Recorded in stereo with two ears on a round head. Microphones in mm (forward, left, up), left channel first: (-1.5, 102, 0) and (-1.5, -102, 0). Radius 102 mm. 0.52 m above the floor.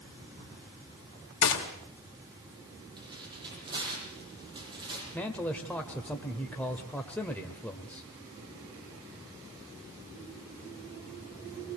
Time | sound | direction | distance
1.4 | a gunshot | 60° left (ahead or behind) | 3 m
3.0 | tearing paper | 20° right (ahead or behind) | 7.5 m
5.1 | a man speaking | 5° left (ahead or behind) | 1.5 m